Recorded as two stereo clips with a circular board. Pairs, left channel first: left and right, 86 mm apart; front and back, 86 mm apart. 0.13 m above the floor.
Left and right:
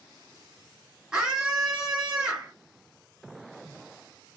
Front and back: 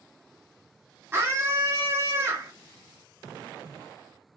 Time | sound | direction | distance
1.1 | a scream | 160° right | 1.2 m